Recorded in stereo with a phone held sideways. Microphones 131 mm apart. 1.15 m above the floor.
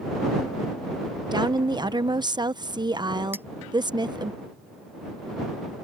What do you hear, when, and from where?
1.3 s a woman speaking: 35° right (ahead or behind)
3.3 s a clink: 15° right (ahead or behind)